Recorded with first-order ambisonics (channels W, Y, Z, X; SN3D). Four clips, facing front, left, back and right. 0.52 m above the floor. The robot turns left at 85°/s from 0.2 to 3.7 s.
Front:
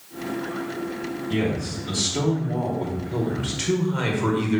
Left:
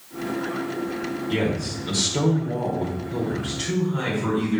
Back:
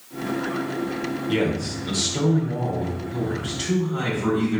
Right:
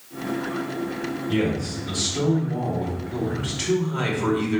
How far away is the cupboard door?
I don't hear a cupboard door.